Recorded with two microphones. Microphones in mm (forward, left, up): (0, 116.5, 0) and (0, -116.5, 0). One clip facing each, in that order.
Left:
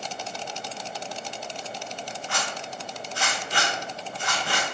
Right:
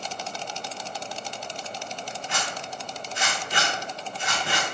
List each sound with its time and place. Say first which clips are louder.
2.3 s a zipper: left 1 dB; 20° right (ahead or behind), 0.8 m